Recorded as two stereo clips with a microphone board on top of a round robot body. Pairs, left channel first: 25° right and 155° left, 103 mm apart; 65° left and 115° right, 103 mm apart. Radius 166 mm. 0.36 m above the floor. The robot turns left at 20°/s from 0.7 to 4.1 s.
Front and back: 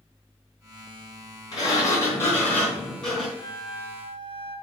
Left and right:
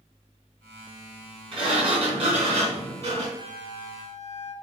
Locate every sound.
1.5 s a sliding door: 75° right, 3.5 m; by 3.3 s 110° right, 3.5 m
3.4 s a flute: 85° right, 1.8 m; by 4.5 s 100° right, 1.8 m